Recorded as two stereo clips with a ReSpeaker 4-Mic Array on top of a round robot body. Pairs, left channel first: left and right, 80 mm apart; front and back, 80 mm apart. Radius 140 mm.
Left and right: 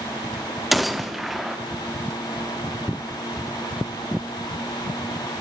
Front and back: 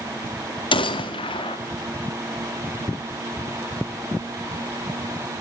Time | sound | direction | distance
0.7 | a gunshot | straight ahead | 0.8 m